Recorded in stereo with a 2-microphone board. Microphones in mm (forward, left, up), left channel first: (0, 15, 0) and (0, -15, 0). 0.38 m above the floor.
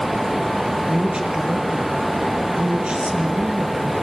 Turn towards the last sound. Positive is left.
turn(degrees=-30)  # may be behind; listen again after turning